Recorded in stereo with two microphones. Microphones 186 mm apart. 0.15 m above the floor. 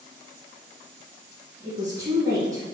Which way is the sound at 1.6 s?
20° right (ahead or behind).